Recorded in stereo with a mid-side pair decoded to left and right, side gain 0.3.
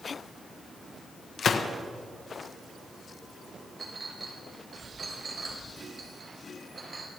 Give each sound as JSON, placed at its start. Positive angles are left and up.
{"t": 1.4, "sound": "a gunshot", "azimuth_deg": 65, "distance_m": 1.3}
{"t": 3.8, "sound": "a clink", "azimuth_deg": -50, "distance_m": 3.5}